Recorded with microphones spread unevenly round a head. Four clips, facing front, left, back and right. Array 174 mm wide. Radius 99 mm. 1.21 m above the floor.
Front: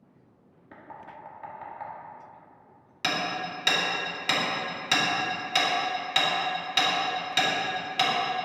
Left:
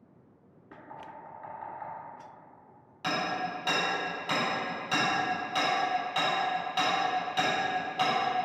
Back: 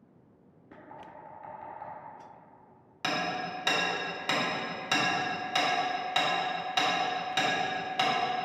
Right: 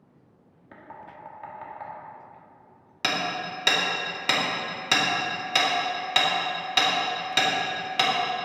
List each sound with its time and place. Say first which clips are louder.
0.7 s knocking: right 1 dB, front 3 dB; 25° right, 2.0 m
3.0 s hammering: right 2 dB, front 2 dB; 65° right, 2.5 m